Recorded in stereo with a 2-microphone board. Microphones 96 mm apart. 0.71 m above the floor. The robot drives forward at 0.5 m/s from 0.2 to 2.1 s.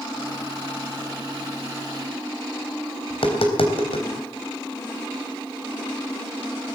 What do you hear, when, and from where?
3.1 s tapping: 75° left (ahead or behind), 3.5 m